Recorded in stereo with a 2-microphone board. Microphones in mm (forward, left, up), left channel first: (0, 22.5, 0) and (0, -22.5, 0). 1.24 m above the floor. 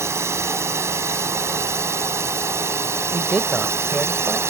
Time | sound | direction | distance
0.0 | a drone | 80° right | ?
3.1 | a man speaking | 10° right (ahead or behind) | ?